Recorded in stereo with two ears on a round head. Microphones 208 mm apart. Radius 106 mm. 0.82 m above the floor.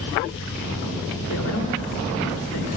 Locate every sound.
1.3 s a man speaking: 70° left (ahead or behind), 2 m